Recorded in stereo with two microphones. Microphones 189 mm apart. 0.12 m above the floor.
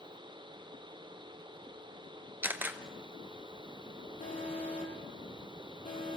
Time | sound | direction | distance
2.4 | a camera shutter | 10° right (ahead or behind) | 1.0 m
4.2 | an alarm | 40° left (ahead or behind) | 5.5 m